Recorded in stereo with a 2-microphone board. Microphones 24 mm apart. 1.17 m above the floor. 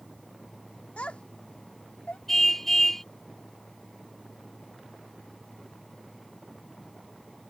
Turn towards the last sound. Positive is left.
turn(degrees=10)  # may be behind; listen again after turning